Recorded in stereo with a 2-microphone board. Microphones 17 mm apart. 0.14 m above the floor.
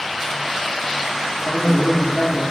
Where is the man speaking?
60° left (ahead or behind), 5.5 m.